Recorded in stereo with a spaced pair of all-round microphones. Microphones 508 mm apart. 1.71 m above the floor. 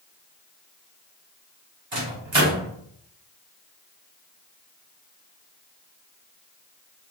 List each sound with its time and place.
1.9 s a microwave: 60° right (ahead or behind), 1.1 m